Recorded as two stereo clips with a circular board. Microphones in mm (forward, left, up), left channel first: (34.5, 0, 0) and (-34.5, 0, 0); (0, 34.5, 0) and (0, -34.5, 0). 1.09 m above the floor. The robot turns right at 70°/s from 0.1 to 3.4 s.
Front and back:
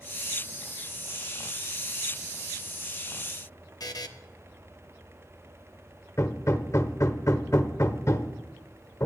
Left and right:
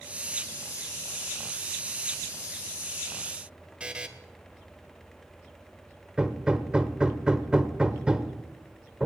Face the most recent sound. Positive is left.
turn(degrees=-15)